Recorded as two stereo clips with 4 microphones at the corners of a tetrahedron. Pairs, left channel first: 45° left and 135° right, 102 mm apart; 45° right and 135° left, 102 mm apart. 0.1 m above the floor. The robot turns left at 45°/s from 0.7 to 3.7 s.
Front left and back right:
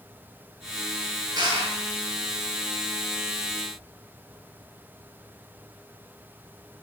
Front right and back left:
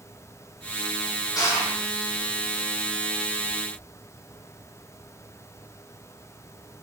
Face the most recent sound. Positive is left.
turn(degrees=165)